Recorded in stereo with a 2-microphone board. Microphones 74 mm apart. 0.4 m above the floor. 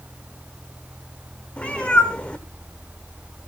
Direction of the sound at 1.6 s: 15° left (ahead or behind).